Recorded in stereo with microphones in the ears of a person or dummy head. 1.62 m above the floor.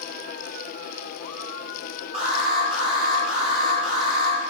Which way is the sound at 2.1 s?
30° right (ahead or behind).